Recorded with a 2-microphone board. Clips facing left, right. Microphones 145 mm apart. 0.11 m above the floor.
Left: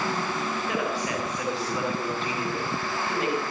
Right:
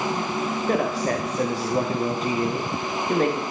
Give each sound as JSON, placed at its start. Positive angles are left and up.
{"t": 0.7, "sound": "a man speaking", "side_deg": -40, "distance_m": 8.5}